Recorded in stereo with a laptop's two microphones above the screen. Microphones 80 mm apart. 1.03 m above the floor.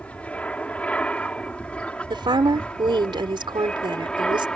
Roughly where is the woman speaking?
Right.